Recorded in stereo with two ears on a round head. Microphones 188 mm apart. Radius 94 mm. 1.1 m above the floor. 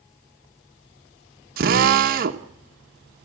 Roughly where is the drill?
Right.